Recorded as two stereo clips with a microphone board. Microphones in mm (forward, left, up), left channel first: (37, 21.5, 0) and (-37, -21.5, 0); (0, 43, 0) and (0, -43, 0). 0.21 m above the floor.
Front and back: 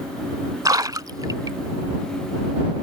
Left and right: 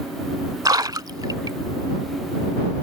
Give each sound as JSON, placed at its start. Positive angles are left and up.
{"t": 0.7, "sound": "a splash", "azimuth_deg": -115}